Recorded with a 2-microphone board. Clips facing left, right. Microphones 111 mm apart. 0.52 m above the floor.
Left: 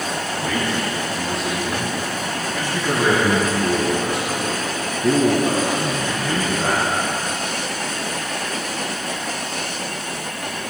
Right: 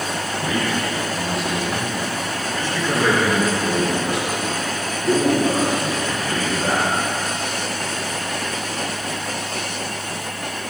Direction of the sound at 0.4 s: 10° right (ahead or behind).